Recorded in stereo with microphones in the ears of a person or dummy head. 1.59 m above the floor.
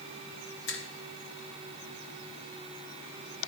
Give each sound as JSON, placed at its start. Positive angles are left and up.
{"t": 0.7, "sound": "a finger snap", "side_deg": 75, "distance_m": 1.5}